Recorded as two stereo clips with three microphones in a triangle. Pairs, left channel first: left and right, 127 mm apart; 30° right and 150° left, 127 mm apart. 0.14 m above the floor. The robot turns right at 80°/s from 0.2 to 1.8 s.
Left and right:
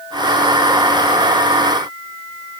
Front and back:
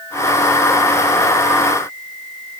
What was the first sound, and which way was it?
Only background noise.